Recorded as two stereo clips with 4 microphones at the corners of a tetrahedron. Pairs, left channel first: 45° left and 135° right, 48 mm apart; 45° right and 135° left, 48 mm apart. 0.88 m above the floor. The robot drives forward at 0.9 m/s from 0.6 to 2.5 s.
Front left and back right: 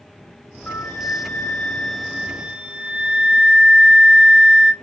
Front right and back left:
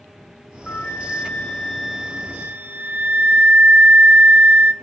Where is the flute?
5° left, 1.3 m; by 4.7 s 170° left, 0.7 m.